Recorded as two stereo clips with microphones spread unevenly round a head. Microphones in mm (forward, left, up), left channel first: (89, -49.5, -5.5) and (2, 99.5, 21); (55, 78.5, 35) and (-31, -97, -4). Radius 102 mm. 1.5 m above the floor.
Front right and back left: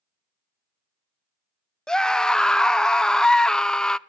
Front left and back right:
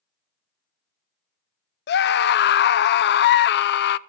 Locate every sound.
1.9 s a scream: 30° left, 0.6 m